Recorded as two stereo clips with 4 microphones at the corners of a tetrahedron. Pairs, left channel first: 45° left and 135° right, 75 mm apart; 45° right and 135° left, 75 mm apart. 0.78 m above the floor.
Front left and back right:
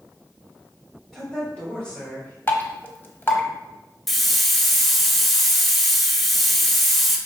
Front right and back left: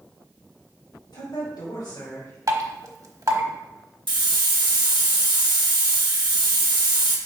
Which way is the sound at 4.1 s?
135° left.